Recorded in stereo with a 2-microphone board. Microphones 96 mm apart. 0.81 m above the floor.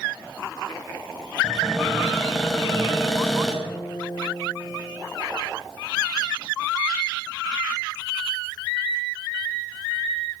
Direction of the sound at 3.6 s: 60° left (ahead or behind).